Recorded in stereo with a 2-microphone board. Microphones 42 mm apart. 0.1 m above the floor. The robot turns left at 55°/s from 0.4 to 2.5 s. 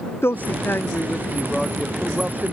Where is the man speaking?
75° left; by 2.5 s 40° right.